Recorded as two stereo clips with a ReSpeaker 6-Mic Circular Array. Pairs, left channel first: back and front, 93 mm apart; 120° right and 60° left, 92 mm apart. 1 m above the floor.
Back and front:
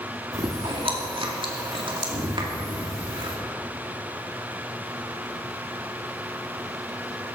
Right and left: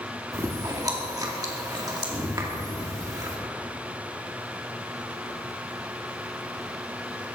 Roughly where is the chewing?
Ahead.